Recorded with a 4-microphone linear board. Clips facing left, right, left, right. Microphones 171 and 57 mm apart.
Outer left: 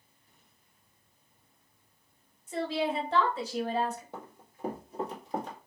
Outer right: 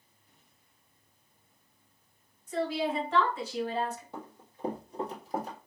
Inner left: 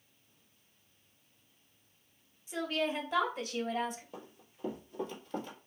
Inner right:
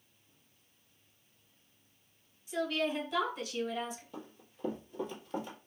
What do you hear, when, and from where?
2.5 s a woman speaking: 25° left (ahead or behind), 1.9 m; by 4.0 s 50° left (ahead or behind), 1.5 m
4.1 s running footsteps: 20° left (ahead or behind), 2.0 m; by 5.6 s 10° right (ahead or behind), 2 m